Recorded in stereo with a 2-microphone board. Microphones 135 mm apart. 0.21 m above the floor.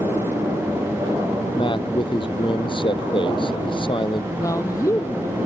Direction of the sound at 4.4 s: 25° left (ahead or behind).